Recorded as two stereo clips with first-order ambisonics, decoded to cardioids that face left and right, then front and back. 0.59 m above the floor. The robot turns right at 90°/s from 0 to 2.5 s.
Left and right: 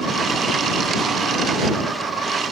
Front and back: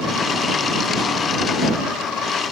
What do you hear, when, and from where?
Only background noise.